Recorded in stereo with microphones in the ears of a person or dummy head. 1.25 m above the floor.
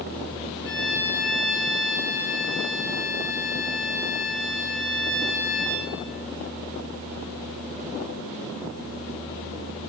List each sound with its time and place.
0.6 s a violin: 60° left (ahead or behind), 4 m